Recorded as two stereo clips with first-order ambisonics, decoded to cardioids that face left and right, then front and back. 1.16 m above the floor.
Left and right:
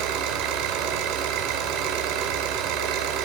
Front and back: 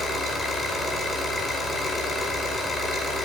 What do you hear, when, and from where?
0.0 s an engine running: 75° right, 5 m